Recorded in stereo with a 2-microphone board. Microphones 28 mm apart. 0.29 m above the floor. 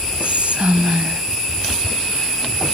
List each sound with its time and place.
0.2 s whispering: 45° right (ahead or behind), 2 m